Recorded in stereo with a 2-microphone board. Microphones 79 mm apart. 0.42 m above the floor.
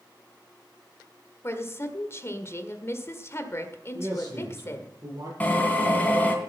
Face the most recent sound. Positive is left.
turn(degrees=20)  # may be behind; listen again after turning